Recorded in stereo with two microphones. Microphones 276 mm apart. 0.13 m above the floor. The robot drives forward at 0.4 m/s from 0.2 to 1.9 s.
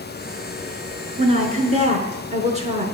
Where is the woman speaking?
25° right (ahead or behind), 1.1 m.